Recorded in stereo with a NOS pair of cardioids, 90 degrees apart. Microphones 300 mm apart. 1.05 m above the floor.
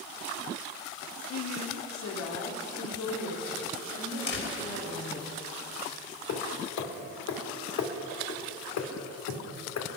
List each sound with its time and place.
1.3 s a woman speaking: 55° left, 1.2 m; by 5.3 s 75° left, 6 m
4.3 s a door slam: 40° left, 4 m
6.3 s hammering: 70° left, 2 m